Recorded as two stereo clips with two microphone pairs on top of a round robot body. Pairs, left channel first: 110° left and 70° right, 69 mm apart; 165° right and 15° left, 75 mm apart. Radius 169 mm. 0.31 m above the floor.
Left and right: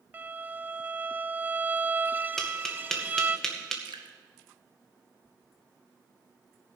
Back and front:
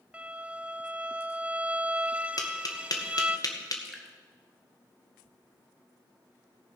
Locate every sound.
0.1 s a violin: 55° right, 0.6 m
2.4 s tapping: 165° right, 2 m
3.9 s dripping: 75° right, 0.7 m